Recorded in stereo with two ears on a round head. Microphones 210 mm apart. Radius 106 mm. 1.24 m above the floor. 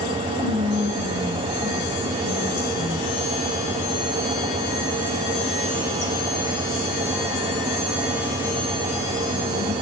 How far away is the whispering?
About 1.7 m.